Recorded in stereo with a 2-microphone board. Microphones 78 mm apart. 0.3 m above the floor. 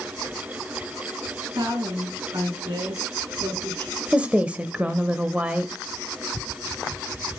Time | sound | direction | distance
1.6 | a woman speaking | 60° right (ahead or behind) | 4 m
4.1 | a woman speaking | 15° right (ahead or behind) | 0.9 m